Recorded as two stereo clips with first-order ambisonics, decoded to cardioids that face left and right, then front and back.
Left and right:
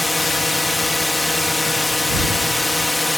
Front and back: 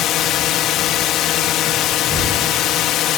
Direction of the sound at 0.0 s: 10° left.